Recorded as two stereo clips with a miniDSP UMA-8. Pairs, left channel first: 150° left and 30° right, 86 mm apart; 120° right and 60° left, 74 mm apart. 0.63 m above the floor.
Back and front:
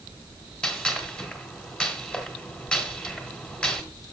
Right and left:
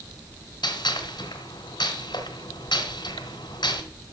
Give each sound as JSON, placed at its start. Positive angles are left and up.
{"t": 0.6, "sound": "a gunshot", "azimuth_deg": -130, "distance_m": 2.0}